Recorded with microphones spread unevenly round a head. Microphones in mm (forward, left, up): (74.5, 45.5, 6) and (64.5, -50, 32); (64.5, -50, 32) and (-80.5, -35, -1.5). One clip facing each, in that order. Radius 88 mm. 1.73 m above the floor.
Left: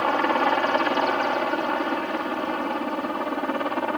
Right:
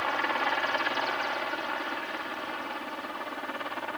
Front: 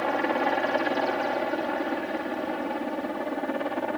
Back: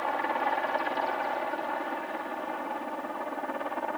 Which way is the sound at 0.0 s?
50° left.